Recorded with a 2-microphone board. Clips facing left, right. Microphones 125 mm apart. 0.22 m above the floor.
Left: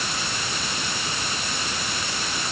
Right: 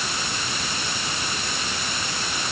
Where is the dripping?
No dripping in this recording.